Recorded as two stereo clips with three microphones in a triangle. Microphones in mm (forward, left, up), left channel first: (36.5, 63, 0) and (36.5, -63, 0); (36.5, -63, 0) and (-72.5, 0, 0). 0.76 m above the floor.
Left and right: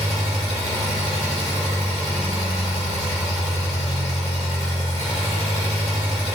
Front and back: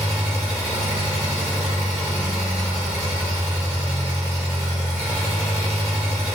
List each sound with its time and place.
0.0 s an engine running: 75° left, 1.3 m